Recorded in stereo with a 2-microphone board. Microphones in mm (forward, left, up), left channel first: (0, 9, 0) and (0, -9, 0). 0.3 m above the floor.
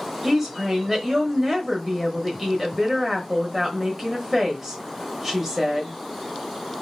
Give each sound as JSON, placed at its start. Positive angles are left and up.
{"t": 0.2, "sound": "a woman speaking", "side_deg": -15, "distance_m": 1.0}